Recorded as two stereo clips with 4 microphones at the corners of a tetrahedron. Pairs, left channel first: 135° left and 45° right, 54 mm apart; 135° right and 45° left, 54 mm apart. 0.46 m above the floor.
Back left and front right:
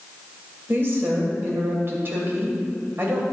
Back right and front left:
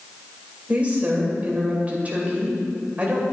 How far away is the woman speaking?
About 2.5 m.